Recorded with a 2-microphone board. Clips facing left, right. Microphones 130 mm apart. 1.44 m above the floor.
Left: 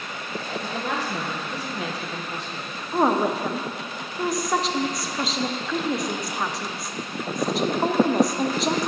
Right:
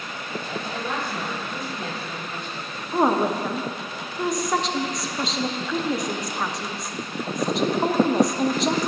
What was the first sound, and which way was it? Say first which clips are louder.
A woman speaking: left 3 dB; 85° left.